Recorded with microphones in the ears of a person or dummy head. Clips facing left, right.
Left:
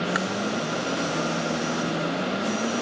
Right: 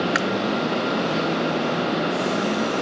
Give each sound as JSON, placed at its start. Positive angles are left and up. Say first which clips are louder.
{"t": 0.1, "sound": "chewing", "louder": "right 3 dB", "side_deg": -30}